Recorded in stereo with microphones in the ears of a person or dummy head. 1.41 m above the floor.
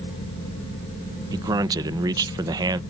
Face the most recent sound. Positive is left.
turn(degrees=-20)  # may be behind; listen again after turning